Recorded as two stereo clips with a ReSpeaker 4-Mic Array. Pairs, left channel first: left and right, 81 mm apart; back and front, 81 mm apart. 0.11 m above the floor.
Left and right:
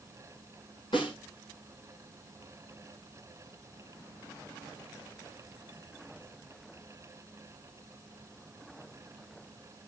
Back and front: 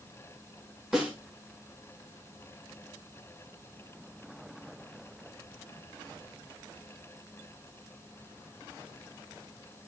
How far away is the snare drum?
About 8.5 m.